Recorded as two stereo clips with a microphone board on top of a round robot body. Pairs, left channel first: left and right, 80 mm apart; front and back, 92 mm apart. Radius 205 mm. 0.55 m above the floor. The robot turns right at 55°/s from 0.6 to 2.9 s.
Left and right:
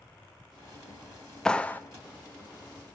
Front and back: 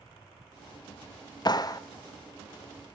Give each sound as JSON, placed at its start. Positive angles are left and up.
{"t": 1.4, "sound": "a clap", "azimuth_deg": 10, "distance_m": 0.8}